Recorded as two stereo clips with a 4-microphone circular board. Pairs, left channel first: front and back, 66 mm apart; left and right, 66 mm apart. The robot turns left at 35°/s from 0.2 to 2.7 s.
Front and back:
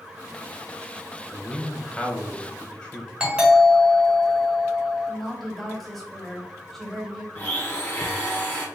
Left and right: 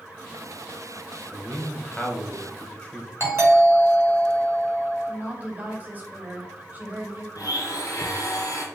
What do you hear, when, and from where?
1.3 s a man speaking: 100° left, 1.0 m; by 3.1 s 50° left, 1.0 m
3.2 s a doorbell: 115° right, 1.9 m
5.1 s a woman speaking: 85° right, 1.2 m
7.3 s a blender: 65° left, 1.5 m